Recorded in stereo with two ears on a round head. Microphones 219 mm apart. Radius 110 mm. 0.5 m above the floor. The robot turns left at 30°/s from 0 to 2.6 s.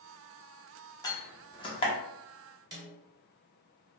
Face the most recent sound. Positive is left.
turn(degrees=-15)  # may be behind; listen again after turning